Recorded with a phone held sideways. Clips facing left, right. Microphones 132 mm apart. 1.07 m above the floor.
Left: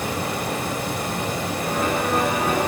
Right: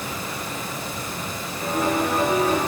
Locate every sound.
0.0 s running water: 70° left (ahead or behind), 1.6 m
1.6 s a piano: 40° right (ahead or behind), 7.5 m